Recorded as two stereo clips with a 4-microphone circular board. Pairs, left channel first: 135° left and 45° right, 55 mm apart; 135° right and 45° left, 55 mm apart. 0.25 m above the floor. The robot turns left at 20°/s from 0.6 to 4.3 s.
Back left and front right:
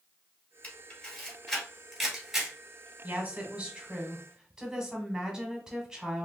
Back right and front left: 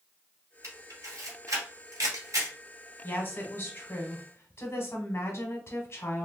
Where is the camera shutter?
70° left, 2 m; by 2.6 s 35° left, 2 m.